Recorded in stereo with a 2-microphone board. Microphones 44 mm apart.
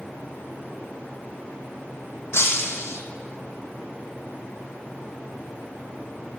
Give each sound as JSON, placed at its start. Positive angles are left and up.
{"t": 2.3, "sound": "breaking glass", "side_deg": 80, "distance_m": 1.3}